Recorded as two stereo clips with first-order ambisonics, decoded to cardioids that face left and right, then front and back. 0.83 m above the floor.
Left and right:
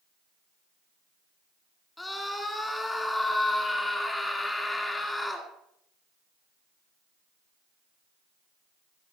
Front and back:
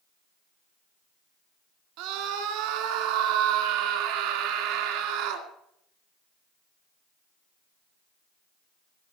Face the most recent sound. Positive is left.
turn(degrees=175)